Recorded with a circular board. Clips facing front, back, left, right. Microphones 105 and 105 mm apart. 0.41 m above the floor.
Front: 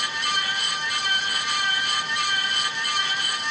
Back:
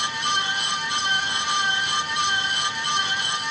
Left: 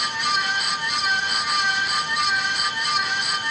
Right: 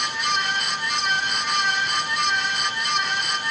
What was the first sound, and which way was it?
Only background noise.